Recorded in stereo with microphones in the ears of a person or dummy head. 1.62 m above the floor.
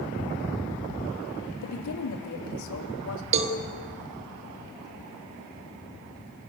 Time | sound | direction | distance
1.6 | a woman speaking | 85° left | 3 m
3.3 | a cowbell | 35° right (ahead or behind) | 1.6 m